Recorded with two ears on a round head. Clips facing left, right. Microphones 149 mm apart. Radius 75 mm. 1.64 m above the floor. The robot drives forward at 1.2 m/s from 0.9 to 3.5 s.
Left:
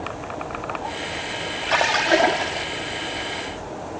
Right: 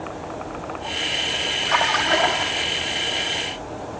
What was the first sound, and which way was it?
A splash, 40° left (ahead or behind).